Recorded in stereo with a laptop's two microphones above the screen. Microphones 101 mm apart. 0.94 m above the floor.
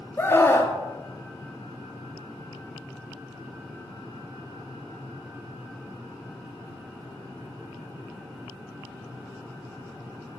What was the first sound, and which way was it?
A scream, 25° left (ahead or behind).